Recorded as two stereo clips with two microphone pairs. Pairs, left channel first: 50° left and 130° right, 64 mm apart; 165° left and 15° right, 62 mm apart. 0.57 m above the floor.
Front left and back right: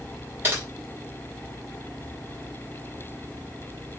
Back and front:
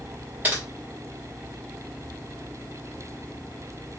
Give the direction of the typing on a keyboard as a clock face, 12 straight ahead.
2 o'clock.